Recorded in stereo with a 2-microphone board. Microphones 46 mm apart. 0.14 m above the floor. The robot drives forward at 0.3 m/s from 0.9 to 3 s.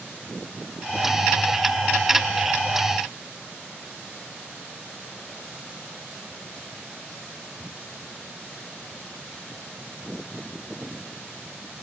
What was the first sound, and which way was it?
Only background noise.